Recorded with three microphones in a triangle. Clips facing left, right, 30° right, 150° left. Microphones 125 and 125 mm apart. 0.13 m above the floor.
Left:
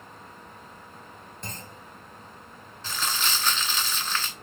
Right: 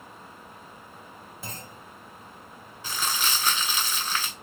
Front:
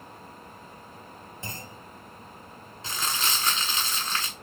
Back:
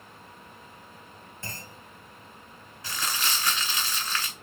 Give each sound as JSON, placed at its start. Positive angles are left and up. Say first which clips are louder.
{"t": 1.4, "sound": "a clunk", "louder": "even, front 2 dB", "azimuth_deg": -20, "distance_m": 0.6}
{"t": 2.8, "sound": "crumpling", "louder": "even, front 1 dB", "azimuth_deg": -30, "distance_m": 1.0}